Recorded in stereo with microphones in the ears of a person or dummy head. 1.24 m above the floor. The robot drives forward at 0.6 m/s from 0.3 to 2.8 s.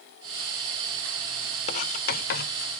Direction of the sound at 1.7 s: 40° left (ahead or behind).